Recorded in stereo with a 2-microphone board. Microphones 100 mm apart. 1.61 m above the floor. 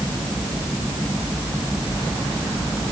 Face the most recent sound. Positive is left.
No sound to turn to.